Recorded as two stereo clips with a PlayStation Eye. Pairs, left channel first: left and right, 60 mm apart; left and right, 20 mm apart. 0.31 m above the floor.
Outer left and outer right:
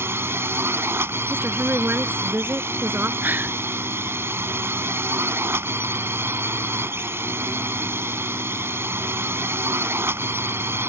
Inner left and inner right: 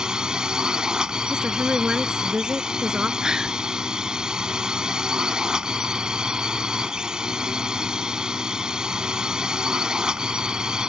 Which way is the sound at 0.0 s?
40° right (ahead or behind).